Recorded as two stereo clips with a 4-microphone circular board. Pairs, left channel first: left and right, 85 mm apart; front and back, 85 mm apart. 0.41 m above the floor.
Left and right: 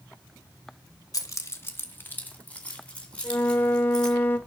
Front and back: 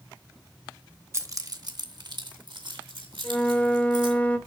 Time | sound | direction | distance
1.1 | keys jangling | 130° left | 1.0 m
3.2 | a flute | 55° left | 1.0 m